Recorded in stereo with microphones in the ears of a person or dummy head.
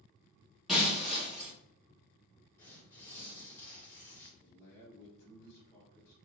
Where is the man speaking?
15° left (ahead or behind), 0.8 m.